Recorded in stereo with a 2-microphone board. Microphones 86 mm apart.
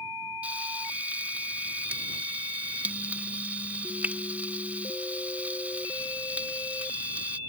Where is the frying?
20° right (ahead or behind).